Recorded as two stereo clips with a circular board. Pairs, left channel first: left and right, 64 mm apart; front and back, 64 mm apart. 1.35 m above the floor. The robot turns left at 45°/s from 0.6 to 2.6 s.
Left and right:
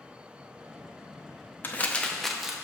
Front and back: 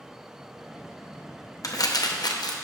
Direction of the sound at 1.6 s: 30° left.